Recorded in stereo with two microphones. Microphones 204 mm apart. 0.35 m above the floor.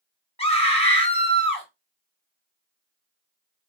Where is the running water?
I don't hear running water.